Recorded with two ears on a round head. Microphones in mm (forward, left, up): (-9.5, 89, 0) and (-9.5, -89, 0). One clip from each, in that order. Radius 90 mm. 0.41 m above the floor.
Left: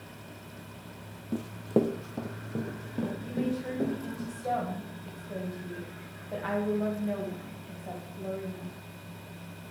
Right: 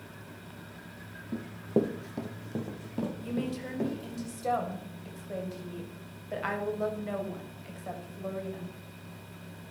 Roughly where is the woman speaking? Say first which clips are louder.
Left 2 dB; right.